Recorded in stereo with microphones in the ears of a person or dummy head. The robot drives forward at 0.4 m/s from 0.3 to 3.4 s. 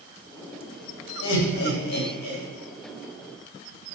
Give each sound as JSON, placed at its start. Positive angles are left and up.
{"t": 1.2, "sound": "laughter", "side_deg": 80, "distance_m": 0.6}